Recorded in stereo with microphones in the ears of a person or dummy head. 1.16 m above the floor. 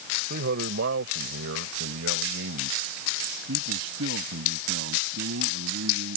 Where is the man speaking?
60° right (ahead or behind); by 6.2 s 85° right.